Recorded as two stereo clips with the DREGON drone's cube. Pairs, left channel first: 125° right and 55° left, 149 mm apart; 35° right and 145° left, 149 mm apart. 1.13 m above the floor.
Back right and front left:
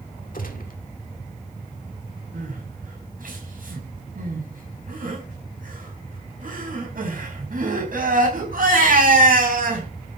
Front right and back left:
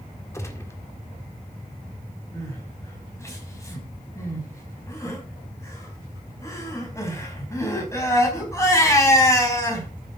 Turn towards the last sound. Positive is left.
turn(degrees=35)